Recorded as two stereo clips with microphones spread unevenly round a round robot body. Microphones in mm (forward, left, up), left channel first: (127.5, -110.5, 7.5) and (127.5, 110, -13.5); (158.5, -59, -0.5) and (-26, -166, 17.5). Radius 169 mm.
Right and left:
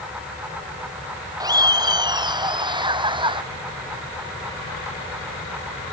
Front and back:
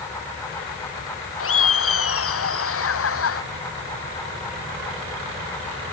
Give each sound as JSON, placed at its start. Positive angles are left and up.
{"t": 1.4, "sound": "laughter", "azimuth_deg": 15}